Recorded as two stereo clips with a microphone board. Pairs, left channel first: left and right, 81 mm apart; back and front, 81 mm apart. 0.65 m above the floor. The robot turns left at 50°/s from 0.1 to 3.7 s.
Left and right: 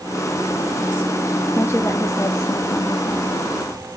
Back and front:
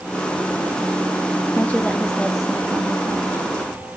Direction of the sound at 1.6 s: 130° left.